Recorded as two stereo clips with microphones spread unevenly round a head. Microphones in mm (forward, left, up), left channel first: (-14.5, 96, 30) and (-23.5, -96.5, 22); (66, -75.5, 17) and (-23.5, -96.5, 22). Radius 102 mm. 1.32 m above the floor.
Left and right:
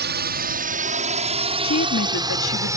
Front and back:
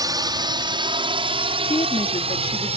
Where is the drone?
125° right; by 2.8 s 165° right.